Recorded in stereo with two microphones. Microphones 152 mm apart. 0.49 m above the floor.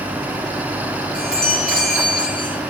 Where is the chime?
5° left (ahead or behind), 10 m.